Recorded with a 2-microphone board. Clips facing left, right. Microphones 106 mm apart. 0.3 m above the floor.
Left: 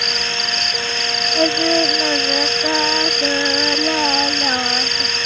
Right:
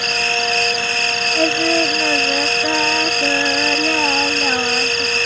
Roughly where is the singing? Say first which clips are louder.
Left 1 dB; centre.